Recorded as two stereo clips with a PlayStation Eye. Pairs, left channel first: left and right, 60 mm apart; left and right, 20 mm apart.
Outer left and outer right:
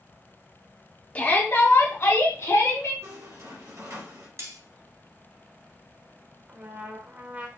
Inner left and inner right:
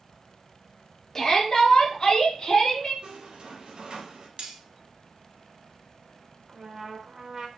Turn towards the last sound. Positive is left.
turn(degrees=-25)  # may be behind; listen again after turning